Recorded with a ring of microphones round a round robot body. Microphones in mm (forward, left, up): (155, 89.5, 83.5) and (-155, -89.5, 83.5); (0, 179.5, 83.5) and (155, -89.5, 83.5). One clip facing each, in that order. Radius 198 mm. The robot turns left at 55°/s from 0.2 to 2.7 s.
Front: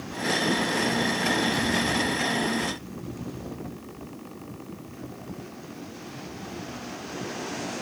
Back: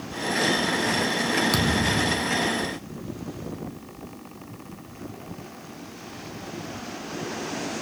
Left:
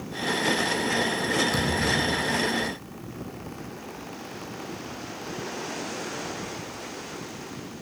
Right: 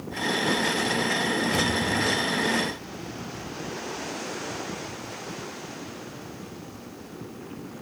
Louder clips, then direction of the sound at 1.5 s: Back 2 dB, even; 165° right.